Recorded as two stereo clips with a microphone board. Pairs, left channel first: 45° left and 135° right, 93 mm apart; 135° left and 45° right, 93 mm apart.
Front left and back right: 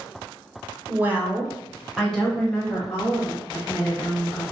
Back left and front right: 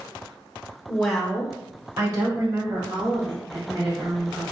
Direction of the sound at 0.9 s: 160° right.